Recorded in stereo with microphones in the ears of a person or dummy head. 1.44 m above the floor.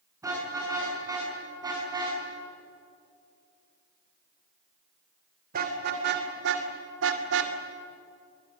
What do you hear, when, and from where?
0.2 s a car horn: 15° right (ahead or behind), 8 m; by 7.6 s 70° right (ahead or behind), 2.5 m